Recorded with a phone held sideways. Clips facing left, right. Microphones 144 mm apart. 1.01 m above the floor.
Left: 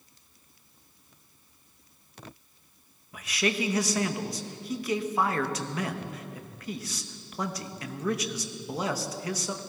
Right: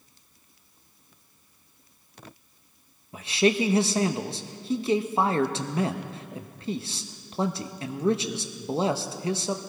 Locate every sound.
3.1 s a man speaking: 30° right (ahead or behind), 0.9 m